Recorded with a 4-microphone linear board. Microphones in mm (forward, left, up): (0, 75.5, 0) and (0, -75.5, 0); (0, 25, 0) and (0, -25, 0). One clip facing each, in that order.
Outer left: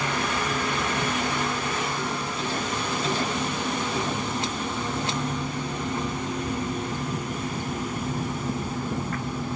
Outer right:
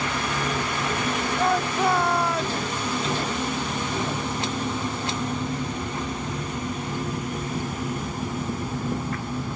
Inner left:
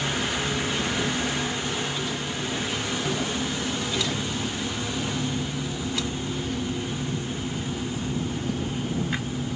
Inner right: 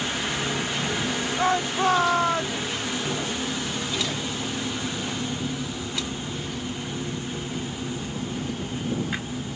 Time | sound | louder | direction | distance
1.4 | a shout | outer right 6 dB, inner right 6 dB | 70° right (ahead or behind) | ?